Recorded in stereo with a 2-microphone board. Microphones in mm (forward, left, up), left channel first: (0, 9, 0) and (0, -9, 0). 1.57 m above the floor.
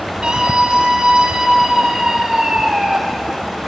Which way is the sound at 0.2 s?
70° right (ahead or behind).